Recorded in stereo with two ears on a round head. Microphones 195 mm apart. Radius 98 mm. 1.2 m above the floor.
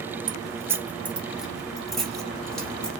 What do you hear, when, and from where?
0.3 s keys jangling: 20° right (ahead or behind), 0.6 m; by 2.9 s 5° left (ahead or behind), 1.9 m